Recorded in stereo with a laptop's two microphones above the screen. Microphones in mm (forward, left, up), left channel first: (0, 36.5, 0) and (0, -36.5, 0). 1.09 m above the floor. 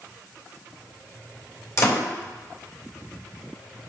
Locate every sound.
1.8 s a door slam: 45° left (ahead or behind), 3 m